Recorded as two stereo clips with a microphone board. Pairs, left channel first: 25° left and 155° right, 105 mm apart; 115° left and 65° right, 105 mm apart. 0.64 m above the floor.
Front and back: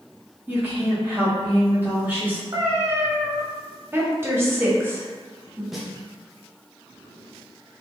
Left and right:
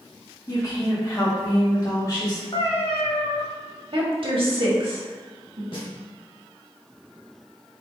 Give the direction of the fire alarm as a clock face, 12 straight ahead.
No fire alarm in this recording.